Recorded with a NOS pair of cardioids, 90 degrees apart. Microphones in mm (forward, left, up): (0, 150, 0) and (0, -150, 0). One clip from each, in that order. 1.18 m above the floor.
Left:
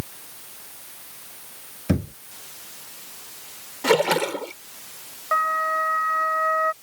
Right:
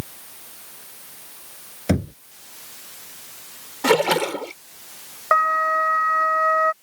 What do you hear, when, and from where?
1.9 s knocking: 55° right
3.8 s a splash: 25° right
5.3 s a flute: 70° right